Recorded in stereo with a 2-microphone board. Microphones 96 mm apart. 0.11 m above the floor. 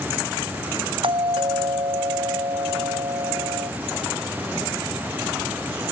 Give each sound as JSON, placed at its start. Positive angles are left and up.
{"t": 1.0, "sound": "a doorbell", "side_deg": -60}